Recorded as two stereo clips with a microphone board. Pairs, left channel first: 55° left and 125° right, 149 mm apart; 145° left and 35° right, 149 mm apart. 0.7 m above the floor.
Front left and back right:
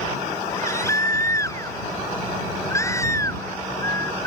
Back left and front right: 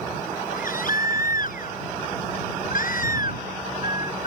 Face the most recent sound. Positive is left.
turn(degrees=125)